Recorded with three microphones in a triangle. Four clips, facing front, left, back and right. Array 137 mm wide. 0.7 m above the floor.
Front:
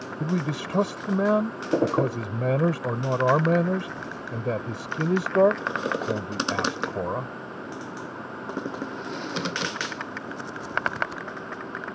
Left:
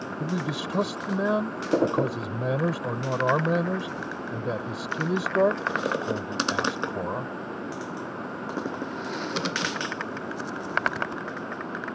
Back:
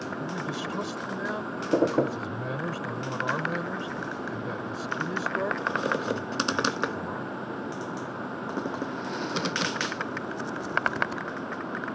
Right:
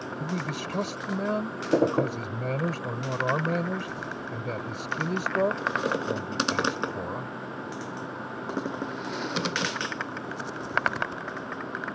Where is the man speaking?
15° left.